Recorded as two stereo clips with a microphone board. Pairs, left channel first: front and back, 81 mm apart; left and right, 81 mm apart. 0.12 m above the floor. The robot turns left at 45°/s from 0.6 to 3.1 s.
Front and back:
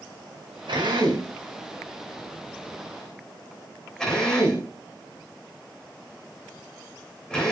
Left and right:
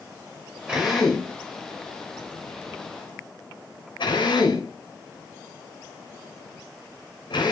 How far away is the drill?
About 4 m.